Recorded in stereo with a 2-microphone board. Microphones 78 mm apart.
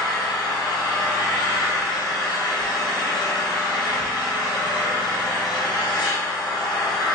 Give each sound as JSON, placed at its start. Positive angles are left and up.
{"t": 0.0, "sound": "an engine running", "side_deg": 85, "distance_m": 2.0}